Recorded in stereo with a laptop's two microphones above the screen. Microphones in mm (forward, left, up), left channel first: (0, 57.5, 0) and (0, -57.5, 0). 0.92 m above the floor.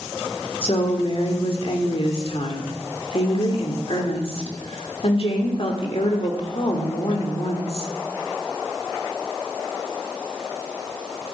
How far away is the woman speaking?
About 2.5 m.